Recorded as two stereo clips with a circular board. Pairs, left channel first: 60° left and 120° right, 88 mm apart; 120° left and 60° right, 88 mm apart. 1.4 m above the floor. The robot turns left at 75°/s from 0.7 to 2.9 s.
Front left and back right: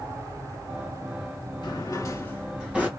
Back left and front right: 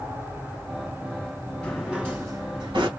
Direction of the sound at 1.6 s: 40° left.